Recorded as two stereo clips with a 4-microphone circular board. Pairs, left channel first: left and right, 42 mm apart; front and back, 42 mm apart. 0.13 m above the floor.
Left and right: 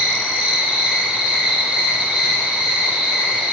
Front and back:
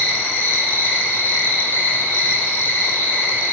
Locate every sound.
0.0 s an insect: 25° right, 1.2 m